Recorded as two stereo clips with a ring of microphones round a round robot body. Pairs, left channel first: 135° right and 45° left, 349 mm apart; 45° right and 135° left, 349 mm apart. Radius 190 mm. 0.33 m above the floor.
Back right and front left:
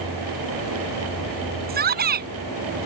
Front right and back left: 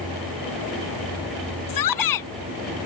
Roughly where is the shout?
Ahead.